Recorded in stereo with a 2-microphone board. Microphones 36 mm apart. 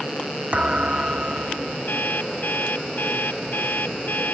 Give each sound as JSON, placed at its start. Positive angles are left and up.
{"t": 0.5, "sound": "a thud", "side_deg": -30}
{"t": 1.9, "sound": "an alarm clock", "side_deg": 65}